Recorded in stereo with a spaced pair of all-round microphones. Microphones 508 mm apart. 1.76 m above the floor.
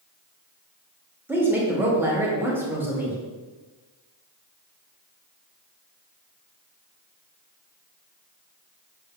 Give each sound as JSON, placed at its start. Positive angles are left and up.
{"t": 1.3, "sound": "a woman speaking", "side_deg": -5, "distance_m": 0.7}